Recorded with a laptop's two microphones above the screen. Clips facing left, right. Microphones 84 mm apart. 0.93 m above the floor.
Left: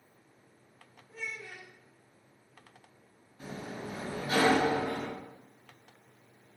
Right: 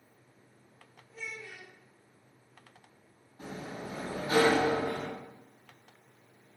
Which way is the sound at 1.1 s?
50° left (ahead or behind).